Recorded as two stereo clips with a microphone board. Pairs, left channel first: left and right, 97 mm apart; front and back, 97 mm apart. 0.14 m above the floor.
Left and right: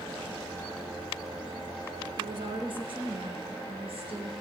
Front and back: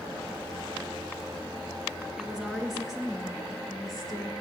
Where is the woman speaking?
95° right, 2 m; by 4.4 s 90° right, 3 m.